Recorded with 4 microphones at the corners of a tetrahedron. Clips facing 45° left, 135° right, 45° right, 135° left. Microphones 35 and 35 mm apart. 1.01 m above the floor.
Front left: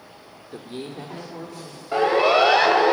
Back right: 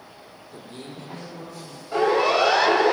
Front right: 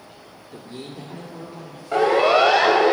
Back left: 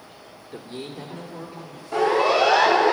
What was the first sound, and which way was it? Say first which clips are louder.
A man speaking: front left 6 dB, back left 1 dB; 65° left.